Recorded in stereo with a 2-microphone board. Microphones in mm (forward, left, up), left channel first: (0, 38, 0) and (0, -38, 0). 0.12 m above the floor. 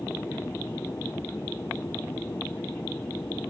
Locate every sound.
0.0 s an aircraft: 25° left (ahead or behind)